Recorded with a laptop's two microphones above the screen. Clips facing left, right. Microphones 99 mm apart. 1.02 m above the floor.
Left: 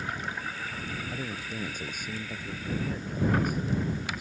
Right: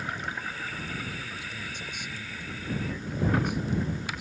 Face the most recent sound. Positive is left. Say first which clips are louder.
# left 3 dB
turn(degrees=45)  # may be behind; listen again after turning